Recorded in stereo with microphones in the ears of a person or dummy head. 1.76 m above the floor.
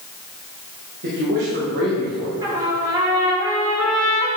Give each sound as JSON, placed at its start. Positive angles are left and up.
{"t": 1.0, "sound": "a man speaking", "side_deg": -55, "distance_m": 2.0}
{"t": 2.4, "sound": "a trumpet", "side_deg": -20, "distance_m": 2.5}